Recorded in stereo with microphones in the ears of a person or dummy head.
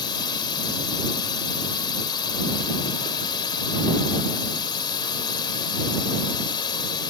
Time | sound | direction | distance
0.0 | a drone | 25° left (ahead or behind) | ?